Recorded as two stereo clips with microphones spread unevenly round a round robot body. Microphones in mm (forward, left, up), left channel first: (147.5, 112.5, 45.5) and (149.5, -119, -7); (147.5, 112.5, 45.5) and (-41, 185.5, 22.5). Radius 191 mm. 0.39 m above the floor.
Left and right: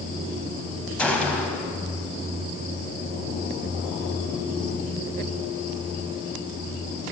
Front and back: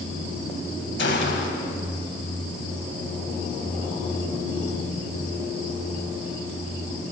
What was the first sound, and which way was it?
A gunshot, straight ahead.